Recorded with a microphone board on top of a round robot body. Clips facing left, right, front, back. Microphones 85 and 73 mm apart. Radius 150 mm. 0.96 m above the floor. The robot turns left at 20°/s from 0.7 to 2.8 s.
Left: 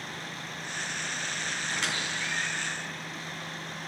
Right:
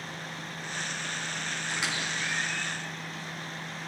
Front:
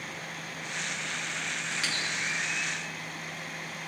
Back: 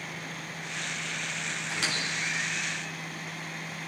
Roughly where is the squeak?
Behind.